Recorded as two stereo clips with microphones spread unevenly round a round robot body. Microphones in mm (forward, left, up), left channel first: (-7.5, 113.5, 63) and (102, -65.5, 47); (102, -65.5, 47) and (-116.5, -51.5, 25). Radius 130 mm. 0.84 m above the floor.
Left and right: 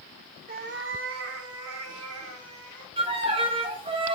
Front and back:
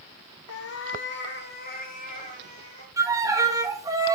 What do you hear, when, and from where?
0.5 s a cat meowing: 5° right, 0.9 m; by 2.9 s 60° right, 2.5 m
3.0 s a violin: 115° right, 1.3 m